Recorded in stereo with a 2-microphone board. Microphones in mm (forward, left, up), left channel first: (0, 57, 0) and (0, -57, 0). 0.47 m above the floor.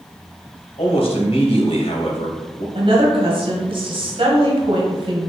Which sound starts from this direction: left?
A man speaking, at 0.8 s.